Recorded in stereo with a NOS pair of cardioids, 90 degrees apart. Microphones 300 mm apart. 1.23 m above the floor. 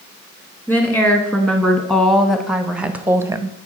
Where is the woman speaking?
5° left, 2 m; by 3.6 s 15° right, 0.7 m.